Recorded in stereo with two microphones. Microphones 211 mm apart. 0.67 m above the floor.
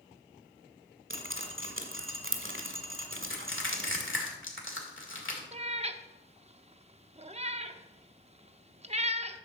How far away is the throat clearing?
No throat clearing in this recording.